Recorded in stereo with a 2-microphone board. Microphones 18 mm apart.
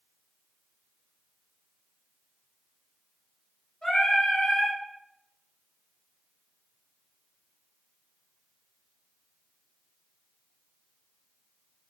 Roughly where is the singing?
Left.